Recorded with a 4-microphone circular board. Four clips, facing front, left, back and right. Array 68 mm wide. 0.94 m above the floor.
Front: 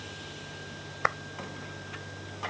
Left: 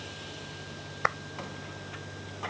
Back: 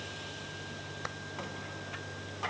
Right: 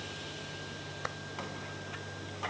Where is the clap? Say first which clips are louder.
Left 12 dB, front 14 dB; 40° left.